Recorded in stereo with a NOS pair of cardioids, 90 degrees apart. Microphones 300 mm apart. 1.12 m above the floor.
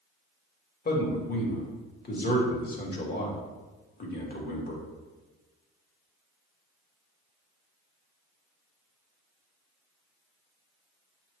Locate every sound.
0.8 s a man speaking: 35° left, 1.7 m